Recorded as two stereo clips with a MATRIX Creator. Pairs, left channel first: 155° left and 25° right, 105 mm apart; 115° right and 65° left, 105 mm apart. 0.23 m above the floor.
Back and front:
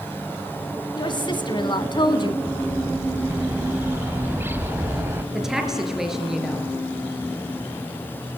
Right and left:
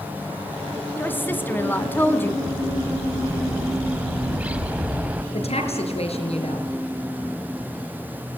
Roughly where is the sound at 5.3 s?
Right.